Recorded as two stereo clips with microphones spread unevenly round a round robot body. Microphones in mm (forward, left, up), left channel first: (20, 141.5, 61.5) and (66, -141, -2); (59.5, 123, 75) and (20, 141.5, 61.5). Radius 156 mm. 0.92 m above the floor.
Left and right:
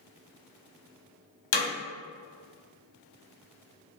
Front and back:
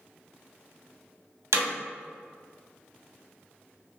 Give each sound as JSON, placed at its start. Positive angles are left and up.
{"t": 1.5, "sound": "hammering", "azimuth_deg": 140, "distance_m": 0.9}